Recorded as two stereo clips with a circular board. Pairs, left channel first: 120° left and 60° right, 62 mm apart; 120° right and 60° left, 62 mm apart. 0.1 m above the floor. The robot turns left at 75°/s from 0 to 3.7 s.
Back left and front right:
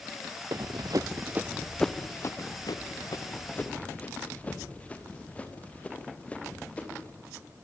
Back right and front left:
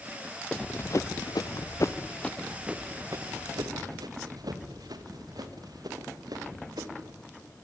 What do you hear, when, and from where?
0.5 s running footsteps: 40° right, 0.5 m; by 7.2 s 50° left, 5 m